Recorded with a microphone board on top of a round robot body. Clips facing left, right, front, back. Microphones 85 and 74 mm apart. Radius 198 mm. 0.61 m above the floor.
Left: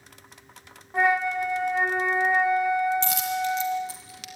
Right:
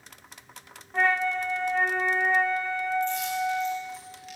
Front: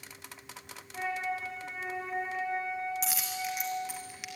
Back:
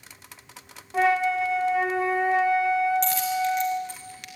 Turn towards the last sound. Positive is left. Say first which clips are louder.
# left 1 dB, back 11 dB
turn(degrees=85)